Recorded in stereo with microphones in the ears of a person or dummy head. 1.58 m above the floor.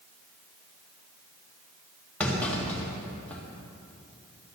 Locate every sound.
2.2 s a clunk: 10° left (ahead or behind), 2 m